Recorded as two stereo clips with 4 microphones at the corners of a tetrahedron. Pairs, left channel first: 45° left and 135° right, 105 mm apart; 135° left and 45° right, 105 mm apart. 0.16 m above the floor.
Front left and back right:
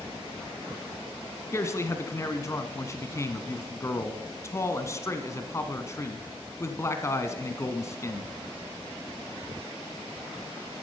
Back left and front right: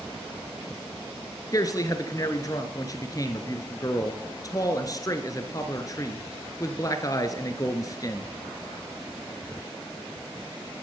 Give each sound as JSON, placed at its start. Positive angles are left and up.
{"t": 1.5, "sound": "a man speaking", "azimuth_deg": 95, "distance_m": 1.5}